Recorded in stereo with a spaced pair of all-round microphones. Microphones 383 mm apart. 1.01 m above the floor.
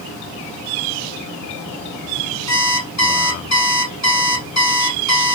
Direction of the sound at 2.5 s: 45° left (ahead or behind).